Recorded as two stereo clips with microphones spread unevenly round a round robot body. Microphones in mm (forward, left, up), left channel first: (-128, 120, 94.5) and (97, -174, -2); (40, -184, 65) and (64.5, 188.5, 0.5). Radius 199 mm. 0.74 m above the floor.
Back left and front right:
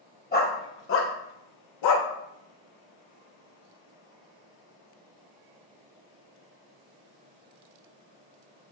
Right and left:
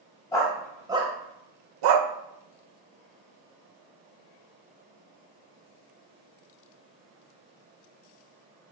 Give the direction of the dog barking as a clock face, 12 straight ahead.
6 o'clock.